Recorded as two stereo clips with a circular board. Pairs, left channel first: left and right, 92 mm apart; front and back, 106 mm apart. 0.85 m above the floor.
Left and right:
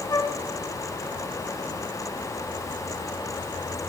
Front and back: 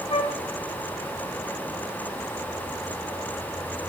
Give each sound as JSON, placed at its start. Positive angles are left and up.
{"t": 0.1, "sound": "a flute", "azimuth_deg": 35, "distance_m": 0.8}